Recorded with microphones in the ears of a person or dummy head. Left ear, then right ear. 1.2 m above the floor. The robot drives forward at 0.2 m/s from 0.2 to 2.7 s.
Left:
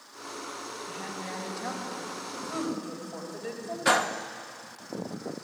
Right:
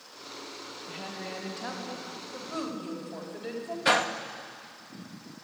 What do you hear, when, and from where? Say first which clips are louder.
0.9 s a woman speaking: right 1 dB; 15° right (ahead or behind), 5 m
3.9 s a gunshot: even; 5° right (ahead or behind), 0.8 m